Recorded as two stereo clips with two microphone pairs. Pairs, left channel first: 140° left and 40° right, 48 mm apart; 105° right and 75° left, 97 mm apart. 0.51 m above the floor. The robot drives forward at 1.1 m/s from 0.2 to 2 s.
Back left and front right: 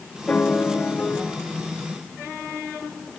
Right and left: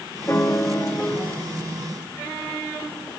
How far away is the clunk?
No clunk in this recording.